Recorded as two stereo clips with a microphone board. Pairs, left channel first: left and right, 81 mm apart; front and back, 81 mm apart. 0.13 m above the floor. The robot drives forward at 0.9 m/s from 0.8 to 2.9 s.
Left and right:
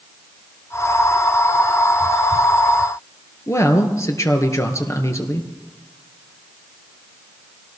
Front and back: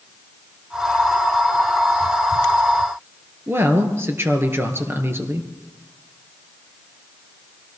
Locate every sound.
3.5 s a woman speaking: 130° left, 2.5 m